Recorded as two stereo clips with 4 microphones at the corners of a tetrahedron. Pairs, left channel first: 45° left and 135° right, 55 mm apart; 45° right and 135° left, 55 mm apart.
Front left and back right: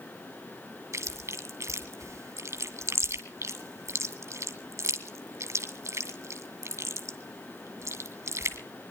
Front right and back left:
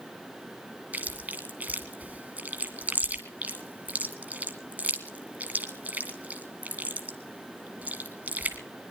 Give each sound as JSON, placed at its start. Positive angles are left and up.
{"t": 0.9, "sound": "chewing", "azimuth_deg": -165, "distance_m": 2.0}